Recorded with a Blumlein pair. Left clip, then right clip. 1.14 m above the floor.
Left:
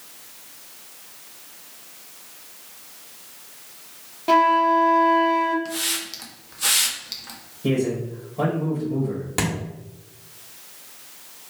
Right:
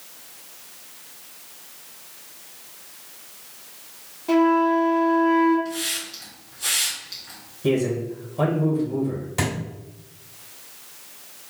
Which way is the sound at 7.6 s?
5° left.